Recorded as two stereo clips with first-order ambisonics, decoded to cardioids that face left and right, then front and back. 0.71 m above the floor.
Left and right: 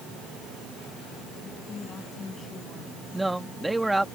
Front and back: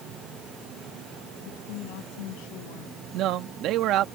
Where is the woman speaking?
20° left; by 3.0 s 15° left.